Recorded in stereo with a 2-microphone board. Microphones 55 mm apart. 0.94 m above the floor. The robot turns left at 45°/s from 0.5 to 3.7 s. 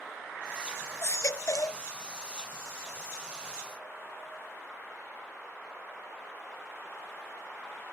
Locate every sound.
1.0 s a baby crying: 120° left; by 1.8 s 85° left